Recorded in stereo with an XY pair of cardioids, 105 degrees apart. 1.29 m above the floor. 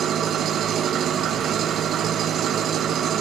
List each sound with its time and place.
0.0 s an engine running: 65° right, 0.9 m